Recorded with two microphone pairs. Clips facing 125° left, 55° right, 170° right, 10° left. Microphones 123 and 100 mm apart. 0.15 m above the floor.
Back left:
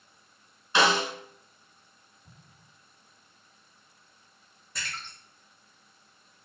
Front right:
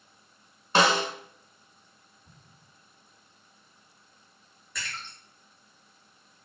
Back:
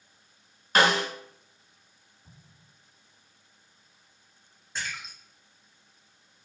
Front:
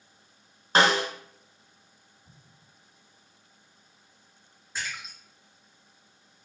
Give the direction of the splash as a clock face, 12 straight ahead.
9 o'clock.